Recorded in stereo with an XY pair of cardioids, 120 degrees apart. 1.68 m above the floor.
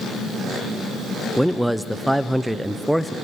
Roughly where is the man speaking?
Ahead.